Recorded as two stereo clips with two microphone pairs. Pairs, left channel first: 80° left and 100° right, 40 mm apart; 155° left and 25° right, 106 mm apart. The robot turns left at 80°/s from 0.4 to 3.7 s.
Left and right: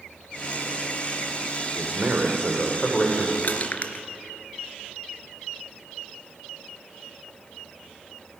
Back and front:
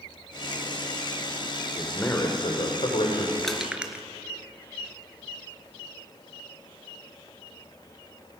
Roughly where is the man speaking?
Behind right.